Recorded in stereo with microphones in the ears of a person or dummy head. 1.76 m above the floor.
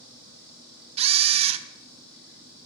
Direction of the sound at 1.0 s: 35° right (ahead or behind).